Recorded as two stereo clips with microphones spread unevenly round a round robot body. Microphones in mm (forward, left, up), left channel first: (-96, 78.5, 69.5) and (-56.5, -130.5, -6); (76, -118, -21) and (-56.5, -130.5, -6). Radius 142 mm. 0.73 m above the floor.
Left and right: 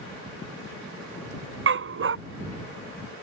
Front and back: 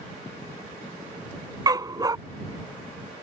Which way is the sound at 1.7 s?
115° right.